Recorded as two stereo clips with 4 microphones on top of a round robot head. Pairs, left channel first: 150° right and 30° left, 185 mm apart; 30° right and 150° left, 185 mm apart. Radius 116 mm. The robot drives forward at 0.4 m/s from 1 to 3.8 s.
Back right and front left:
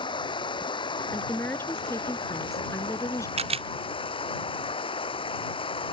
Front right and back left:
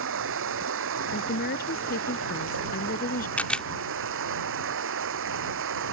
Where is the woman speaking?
70° right; by 3.3 s 75° right.